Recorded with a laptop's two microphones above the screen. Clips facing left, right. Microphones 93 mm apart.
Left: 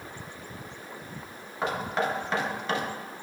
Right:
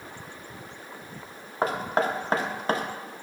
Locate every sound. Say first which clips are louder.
1.6 s knocking: right 3 dB; 40° right (ahead or behind), 0.9 m